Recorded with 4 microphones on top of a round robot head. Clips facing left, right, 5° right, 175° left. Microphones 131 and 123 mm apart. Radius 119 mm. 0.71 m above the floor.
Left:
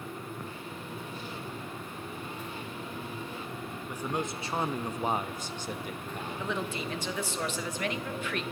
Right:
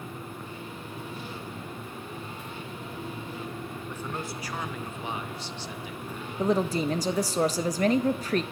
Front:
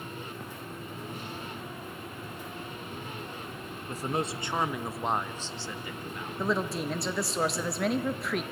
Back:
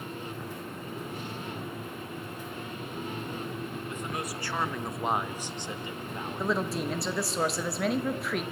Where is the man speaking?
15° left, 0.9 m; by 6.6 s 120° left, 1.5 m.